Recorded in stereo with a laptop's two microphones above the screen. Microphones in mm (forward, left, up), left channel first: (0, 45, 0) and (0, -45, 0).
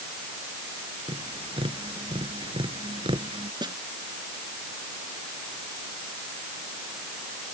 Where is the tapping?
85° right.